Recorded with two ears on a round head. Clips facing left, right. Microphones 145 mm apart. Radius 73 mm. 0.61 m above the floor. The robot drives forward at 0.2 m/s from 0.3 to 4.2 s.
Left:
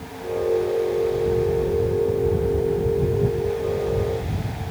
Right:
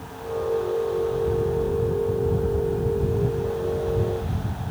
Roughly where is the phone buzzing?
I don't hear a phone buzzing.